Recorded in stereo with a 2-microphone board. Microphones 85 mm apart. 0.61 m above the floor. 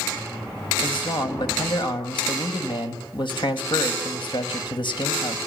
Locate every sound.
0.8 s a man speaking: 70° left (ahead or behind), 3.5 m